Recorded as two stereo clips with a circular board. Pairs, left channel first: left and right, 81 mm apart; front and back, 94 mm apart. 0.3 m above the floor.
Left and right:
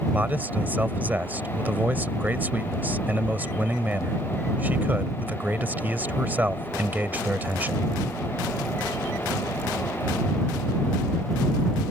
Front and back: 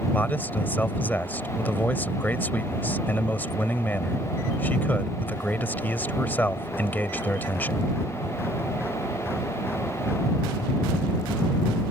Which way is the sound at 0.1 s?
45° right.